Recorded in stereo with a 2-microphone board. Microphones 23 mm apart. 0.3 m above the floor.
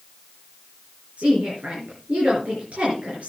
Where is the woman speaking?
75° right (ahead or behind), 4 m.